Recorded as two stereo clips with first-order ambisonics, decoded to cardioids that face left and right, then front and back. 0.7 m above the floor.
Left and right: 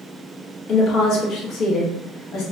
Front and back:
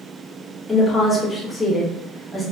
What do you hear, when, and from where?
0.7 s a woman speaking: 75° left, 0.8 m